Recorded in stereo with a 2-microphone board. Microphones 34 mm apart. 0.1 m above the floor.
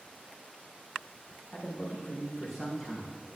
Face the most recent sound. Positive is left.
turn(degrees=10)  # may be behind; listen again after turning